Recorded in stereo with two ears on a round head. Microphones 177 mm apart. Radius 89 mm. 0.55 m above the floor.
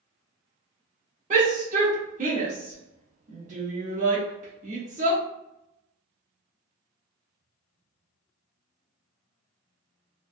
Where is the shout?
40° right (ahead or behind), 0.8 m.